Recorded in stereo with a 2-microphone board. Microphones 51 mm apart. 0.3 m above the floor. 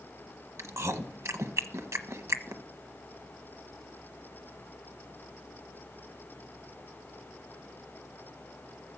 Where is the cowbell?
I don't hear a cowbell.